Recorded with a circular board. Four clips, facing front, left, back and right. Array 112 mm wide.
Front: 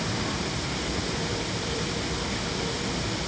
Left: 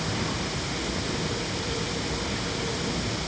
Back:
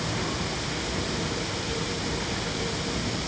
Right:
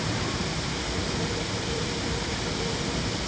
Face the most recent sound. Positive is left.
No sound to turn to.